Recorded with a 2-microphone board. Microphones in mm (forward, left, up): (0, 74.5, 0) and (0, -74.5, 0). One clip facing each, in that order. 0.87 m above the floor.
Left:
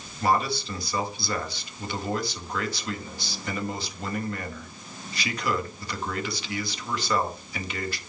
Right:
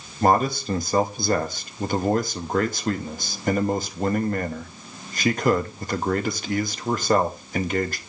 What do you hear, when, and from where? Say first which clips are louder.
0.2 s a man speaking: right 5 dB; 45° right (ahead or behind), 1.0 m